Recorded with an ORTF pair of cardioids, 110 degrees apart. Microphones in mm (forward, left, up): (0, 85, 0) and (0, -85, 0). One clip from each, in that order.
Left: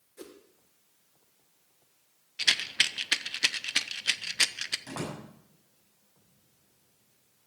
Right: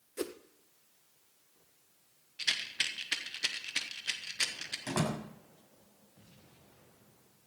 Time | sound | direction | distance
0.2 | a whoosh | 50° right | 1.1 m
2.4 | a rattle | 40° left | 0.9 m
4.9 | a door slam | 35° right | 6.5 m